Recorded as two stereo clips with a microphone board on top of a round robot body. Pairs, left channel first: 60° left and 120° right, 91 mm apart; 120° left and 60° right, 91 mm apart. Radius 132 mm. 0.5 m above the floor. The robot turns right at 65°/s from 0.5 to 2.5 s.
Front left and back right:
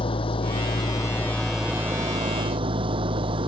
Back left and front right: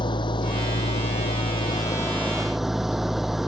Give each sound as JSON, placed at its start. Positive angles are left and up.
{"t": 0.0, "sound": "an engine running", "azimuth_deg": 80}